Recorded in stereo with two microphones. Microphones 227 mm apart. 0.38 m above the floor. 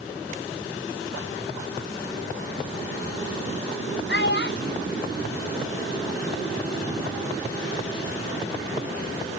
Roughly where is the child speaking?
Left.